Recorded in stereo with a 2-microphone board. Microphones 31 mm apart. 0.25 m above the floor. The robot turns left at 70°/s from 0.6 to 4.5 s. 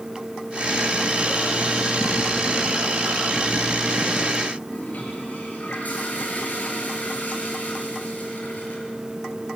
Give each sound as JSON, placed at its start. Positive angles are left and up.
{"t": 4.7, "sound": "a toilet flushing", "side_deg": 60, "distance_m": 5.5}